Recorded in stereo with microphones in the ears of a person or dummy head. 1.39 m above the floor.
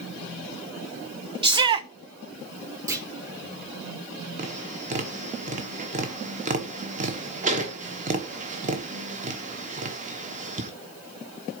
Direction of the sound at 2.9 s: 20° right (ahead or behind).